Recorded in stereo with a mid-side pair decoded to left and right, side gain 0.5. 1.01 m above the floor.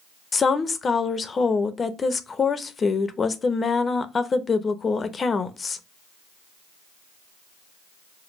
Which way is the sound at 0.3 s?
35° left.